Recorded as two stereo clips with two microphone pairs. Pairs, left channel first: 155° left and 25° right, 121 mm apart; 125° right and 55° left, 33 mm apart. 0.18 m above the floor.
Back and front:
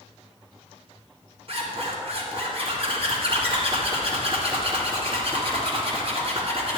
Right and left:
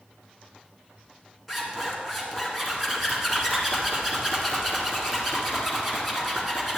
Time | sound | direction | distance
1.5 | a zipper | 30° right | 2 m